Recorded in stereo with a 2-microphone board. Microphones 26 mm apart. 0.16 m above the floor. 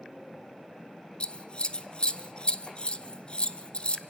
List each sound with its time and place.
1.2 s scissors: 40° left (ahead or behind), 0.8 m